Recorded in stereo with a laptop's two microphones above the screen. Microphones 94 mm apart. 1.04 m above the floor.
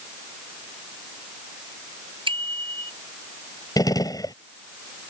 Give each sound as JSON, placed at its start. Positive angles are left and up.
{"t": 2.3, "sound": "a bicycle bell", "side_deg": -65}
{"t": 3.8, "sound": "a gunshot", "side_deg": 45}